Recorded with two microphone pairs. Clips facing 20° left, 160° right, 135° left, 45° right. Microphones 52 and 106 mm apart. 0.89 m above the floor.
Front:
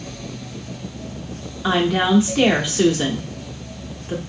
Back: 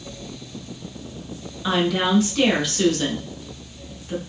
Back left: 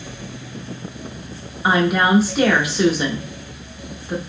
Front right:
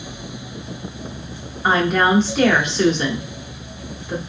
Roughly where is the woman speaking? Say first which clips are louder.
Front 3 dB, even; ahead left.